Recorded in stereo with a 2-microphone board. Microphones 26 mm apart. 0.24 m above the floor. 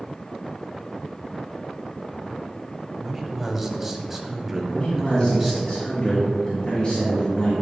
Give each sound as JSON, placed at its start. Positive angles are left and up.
{"t": 3.0, "sound": "a man speaking", "side_deg": -5, "distance_m": 1.0}
{"t": 4.7, "sound": "a man speaking", "side_deg": 45, "distance_m": 2.5}